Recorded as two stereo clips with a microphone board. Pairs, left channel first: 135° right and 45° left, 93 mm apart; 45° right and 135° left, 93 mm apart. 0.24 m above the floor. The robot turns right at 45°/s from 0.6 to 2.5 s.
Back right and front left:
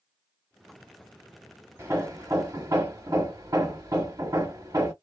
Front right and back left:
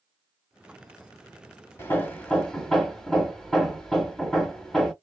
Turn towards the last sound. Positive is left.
turn(degrees=35)